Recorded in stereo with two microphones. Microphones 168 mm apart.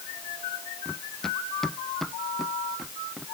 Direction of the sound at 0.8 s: 5° left (ahead or behind).